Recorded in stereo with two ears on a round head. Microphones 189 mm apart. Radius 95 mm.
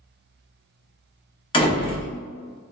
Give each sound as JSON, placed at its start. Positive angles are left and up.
{"t": 1.5, "sound": "a door slam", "side_deg": 25, "distance_m": 0.7}